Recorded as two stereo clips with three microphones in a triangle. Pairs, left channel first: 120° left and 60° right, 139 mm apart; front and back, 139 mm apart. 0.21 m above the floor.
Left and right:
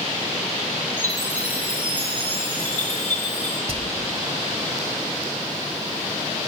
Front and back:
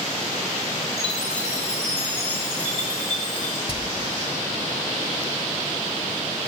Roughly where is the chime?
Left.